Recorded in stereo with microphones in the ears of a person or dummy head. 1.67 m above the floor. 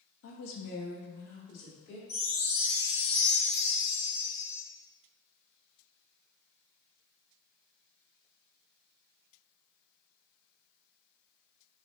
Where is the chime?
45° left (ahead or behind), 1.2 m.